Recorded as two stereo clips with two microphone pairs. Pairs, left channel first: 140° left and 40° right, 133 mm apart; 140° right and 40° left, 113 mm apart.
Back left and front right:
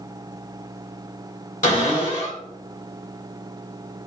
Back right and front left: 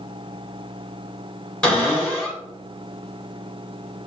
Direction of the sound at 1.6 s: 140° left.